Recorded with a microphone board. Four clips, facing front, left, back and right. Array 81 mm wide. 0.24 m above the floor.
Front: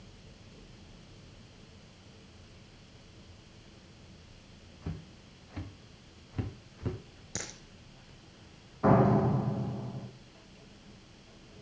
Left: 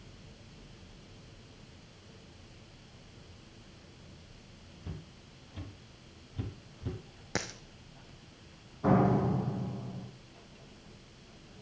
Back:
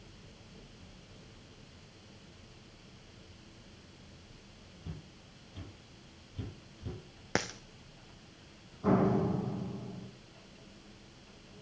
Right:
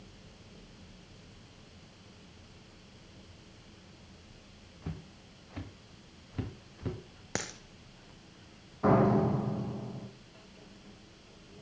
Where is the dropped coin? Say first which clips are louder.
Left 1 dB, back 10 dB; 175° right, 1.7 m.